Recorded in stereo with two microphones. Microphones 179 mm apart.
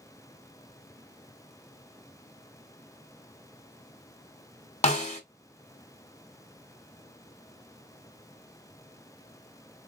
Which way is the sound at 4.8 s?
40° left (ahead or behind).